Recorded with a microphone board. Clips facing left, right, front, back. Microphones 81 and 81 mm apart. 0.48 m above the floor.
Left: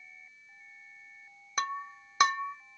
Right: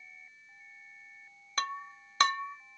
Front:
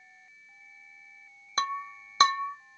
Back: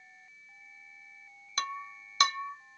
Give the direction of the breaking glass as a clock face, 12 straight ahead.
11 o'clock.